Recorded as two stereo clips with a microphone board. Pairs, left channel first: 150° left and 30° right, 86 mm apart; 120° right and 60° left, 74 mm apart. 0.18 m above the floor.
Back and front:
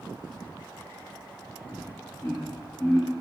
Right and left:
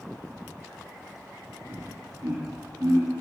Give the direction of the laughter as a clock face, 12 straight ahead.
9 o'clock.